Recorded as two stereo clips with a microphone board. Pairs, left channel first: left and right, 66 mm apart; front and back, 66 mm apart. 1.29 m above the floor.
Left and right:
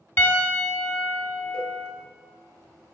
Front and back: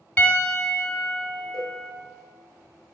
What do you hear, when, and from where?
0.2 s a piano: 55° left, 1.0 m
1.5 s a cowbell: 175° left, 2.5 m